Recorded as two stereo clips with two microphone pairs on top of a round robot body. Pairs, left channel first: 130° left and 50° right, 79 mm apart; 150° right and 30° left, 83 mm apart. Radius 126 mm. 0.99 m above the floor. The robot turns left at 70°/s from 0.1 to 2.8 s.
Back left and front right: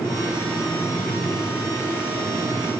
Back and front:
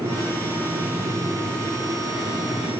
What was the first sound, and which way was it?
Only background noise.